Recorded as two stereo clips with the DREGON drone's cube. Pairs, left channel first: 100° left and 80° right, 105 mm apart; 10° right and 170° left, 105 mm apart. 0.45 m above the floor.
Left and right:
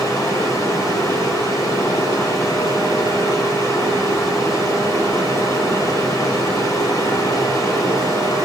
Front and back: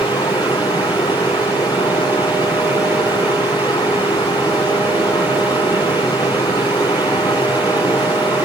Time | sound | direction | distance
0.0 | running water | 40° left | 7 m